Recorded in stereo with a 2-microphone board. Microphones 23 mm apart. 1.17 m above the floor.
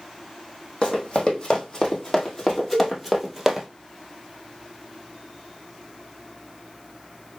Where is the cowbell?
Centre (ahead or behind), 3 m.